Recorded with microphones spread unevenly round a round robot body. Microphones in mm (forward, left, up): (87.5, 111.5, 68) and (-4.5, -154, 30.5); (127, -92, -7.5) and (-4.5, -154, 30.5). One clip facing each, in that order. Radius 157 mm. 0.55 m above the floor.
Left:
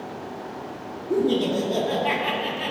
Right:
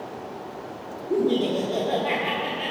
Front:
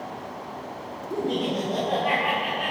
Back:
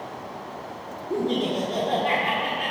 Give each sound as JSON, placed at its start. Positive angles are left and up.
{"t": 1.1, "sound": "laughter", "azimuth_deg": 140, "distance_m": 1.6}